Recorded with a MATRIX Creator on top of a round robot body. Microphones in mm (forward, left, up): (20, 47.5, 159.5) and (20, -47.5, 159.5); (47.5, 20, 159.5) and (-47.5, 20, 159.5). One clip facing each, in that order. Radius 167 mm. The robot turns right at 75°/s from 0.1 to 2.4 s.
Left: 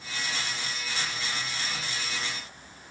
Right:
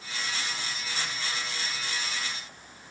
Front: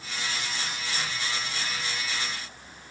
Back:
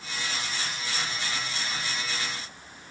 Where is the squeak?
I don't hear a squeak.